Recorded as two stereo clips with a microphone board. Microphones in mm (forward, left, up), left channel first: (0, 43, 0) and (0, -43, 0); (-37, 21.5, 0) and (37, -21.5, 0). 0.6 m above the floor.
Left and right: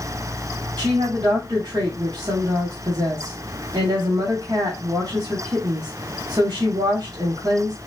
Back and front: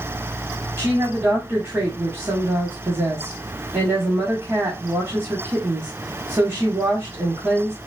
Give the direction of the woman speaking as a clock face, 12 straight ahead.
2 o'clock.